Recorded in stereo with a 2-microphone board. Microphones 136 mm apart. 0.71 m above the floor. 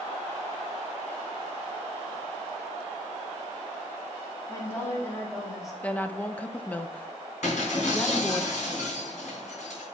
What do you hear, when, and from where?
4.5 s a woman speaking: 25° left (ahead or behind), 1.5 m; by 5.7 s 5° right (ahead or behind), 1.9 m
5.8 s a woman speaking: 10° left (ahead or behind), 0.5 m
7.4 s breaking glass: 65° left (ahead or behind), 3.5 m